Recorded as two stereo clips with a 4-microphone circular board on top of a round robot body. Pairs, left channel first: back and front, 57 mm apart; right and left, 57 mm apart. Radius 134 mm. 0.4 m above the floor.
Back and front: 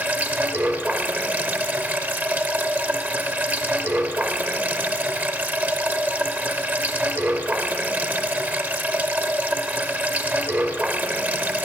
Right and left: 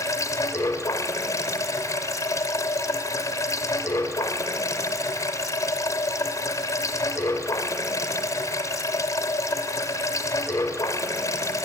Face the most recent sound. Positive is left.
turn(degrees=-60)